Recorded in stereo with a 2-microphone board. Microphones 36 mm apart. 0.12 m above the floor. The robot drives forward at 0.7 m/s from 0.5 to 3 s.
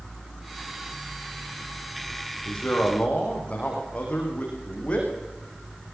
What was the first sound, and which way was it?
A man speaking, 30° left (ahead or behind).